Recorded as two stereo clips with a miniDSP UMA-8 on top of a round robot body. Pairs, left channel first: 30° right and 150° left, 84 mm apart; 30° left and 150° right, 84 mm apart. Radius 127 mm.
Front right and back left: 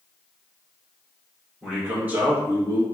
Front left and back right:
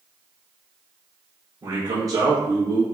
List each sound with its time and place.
1.6 s a man speaking: 130° right, 1.5 m; by 2.8 s straight behind, 1.5 m